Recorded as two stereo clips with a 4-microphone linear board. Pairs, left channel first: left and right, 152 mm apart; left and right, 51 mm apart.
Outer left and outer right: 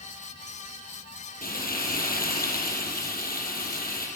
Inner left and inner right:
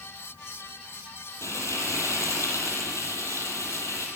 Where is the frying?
70° left (ahead or behind), 7.5 m.